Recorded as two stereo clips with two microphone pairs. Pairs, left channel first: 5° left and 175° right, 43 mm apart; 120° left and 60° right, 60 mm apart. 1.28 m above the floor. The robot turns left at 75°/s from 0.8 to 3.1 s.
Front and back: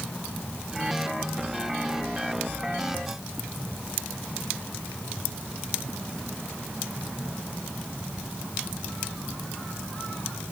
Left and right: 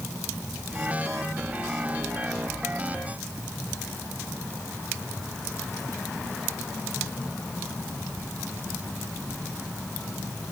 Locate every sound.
Only background noise.